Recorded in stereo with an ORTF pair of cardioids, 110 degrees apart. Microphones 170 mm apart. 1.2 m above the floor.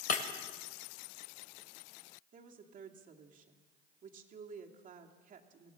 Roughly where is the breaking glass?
Ahead left.